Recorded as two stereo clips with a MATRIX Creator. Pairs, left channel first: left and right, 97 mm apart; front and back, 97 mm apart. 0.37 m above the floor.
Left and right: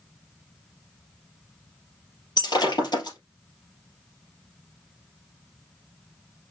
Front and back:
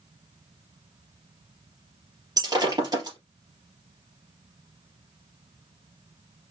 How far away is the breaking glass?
About 3.5 m.